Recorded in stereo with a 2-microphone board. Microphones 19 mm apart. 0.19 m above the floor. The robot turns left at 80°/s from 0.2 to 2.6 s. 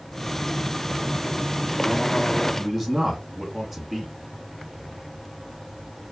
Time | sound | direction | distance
2.6 | a man speaking | 15° right (ahead or behind) | 1.9 m